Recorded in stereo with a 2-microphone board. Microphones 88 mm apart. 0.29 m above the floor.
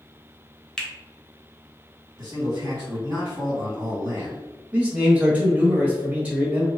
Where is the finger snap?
5° left (ahead or behind), 0.7 m.